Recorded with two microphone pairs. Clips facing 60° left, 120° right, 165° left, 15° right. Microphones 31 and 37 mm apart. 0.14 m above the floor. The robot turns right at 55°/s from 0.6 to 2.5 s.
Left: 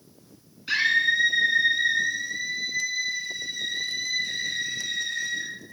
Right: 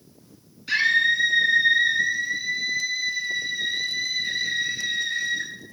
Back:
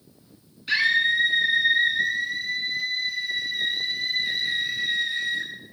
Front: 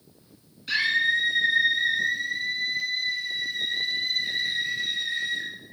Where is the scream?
100° left, 1.3 m; by 5.5 s 160° right, 1.3 m.